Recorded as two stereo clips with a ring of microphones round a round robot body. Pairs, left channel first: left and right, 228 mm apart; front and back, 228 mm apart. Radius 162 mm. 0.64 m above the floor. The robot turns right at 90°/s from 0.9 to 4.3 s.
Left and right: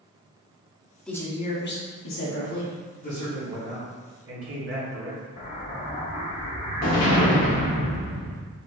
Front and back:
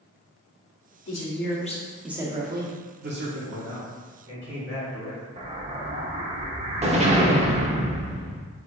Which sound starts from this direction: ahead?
A woman speaking, at 1.1 s.